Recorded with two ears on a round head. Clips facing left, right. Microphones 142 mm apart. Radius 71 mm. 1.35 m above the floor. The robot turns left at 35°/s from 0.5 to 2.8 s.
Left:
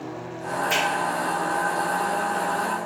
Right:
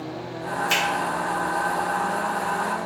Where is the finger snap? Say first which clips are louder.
Left 2 dB; 35° right (ahead or behind), 1.8 m; by 0.8 s 40° right (ahead or behind), 1.8 m.